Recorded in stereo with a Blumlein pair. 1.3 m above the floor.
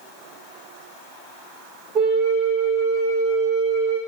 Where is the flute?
30° right, 1.0 m.